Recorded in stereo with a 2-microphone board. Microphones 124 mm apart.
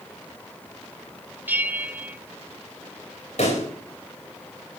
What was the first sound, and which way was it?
A bell, 15° right (ahead or behind).